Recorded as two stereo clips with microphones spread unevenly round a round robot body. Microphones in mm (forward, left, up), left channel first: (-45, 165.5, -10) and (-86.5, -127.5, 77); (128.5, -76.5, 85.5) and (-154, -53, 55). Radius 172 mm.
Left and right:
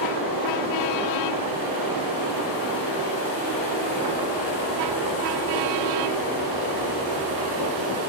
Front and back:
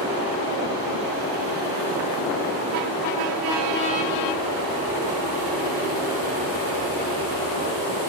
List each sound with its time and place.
0.0 s running water: 25° right, 3.5 m